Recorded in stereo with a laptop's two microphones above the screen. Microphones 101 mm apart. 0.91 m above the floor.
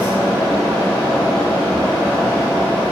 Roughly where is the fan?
Centre.